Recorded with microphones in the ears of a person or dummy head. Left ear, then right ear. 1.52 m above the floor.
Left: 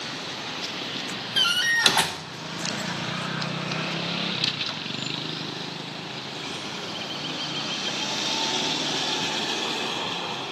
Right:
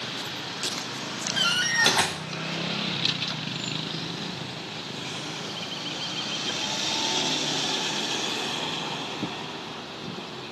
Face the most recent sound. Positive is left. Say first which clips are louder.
# left 2 dB
turn(degrees=15)  # may be behind; listen again after turning